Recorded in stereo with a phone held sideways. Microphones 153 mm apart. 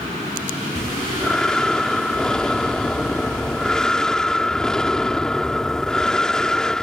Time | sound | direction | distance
0.8 | breathing | 5° left (ahead or behind) | ?